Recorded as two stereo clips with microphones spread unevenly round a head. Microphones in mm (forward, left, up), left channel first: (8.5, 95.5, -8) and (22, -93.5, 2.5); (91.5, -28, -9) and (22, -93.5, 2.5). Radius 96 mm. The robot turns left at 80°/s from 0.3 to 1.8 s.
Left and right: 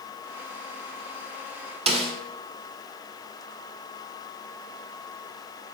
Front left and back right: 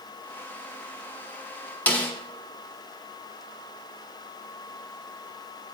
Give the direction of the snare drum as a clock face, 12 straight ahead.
1 o'clock.